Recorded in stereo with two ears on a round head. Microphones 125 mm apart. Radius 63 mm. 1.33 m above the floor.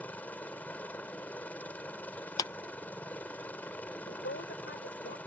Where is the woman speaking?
80° left.